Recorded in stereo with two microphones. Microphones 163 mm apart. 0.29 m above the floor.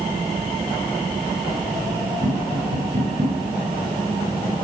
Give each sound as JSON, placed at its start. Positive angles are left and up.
{"t": 2.2, "sound": "tapping", "side_deg": -55, "distance_m": 5.0}